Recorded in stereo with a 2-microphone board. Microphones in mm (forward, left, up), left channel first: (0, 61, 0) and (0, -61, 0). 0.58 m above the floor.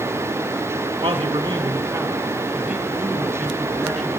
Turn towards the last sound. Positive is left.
turn(degrees=0)  # may be behind; listen again after turning